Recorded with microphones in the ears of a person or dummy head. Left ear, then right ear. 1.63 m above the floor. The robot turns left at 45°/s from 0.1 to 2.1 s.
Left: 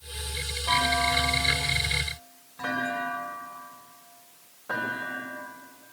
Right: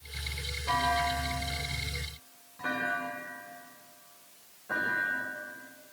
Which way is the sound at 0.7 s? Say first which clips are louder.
Left 4 dB; 20° left (ahead or behind).